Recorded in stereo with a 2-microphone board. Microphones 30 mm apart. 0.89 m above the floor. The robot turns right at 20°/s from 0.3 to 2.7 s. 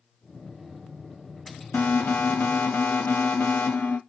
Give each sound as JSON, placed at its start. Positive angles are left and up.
{"t": 1.7, "sound": "an alarm", "side_deg": 75, "distance_m": 0.6}